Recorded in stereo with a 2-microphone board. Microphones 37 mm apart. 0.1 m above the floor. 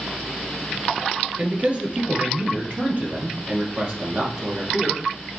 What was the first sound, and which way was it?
A man speaking, 35° right (ahead or behind).